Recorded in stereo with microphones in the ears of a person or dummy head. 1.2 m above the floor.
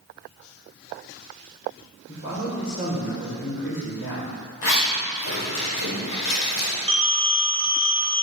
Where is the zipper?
75° left (ahead or behind), 3 m.